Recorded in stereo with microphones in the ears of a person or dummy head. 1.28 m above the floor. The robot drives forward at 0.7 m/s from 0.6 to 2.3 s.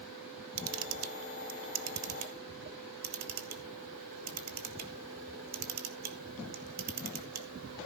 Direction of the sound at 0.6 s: 70° right (ahead or behind).